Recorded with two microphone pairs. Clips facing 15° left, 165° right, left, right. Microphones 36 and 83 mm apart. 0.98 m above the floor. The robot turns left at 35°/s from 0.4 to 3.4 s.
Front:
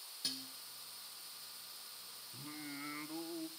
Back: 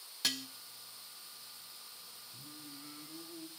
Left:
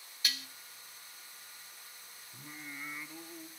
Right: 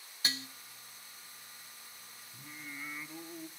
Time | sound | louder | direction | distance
0.2 | dishes clattering | back 8 dB, right 2 dB | 150° right | 0.6 m
2.3 | singing | front 6 dB, even | 25° left | 1.0 m